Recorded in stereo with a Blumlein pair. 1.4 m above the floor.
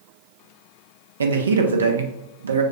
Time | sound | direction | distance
1.2 | a man speaking | 70° right | 0.7 m